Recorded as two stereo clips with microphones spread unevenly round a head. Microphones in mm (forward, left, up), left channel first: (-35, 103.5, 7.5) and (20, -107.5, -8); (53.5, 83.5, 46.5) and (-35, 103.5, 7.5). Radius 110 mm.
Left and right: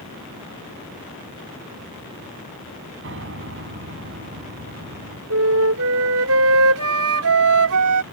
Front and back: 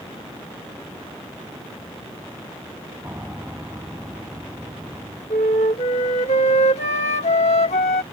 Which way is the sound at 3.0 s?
110° right.